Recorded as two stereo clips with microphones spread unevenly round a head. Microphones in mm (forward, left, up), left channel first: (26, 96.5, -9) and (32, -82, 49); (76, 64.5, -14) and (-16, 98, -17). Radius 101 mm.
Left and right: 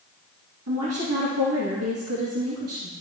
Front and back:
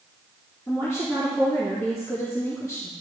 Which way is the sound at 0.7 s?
95° right.